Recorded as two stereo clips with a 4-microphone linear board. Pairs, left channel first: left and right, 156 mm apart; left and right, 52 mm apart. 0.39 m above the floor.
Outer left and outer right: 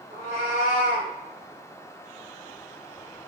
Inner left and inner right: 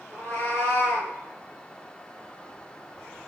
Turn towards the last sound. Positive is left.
turn(degrees=55)  # may be behind; listen again after turning